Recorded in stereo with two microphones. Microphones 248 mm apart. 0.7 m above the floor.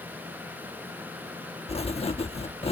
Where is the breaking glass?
I don't hear breaking glass.